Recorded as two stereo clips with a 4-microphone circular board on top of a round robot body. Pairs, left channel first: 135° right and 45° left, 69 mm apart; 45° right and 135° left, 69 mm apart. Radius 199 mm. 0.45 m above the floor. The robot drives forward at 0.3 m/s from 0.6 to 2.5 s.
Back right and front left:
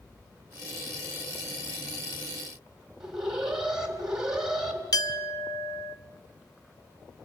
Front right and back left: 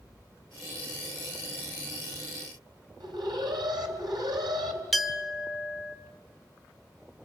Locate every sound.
3.0 s an alarm: 125° left, 4 m
4.9 s a clink: 135° right, 1.5 m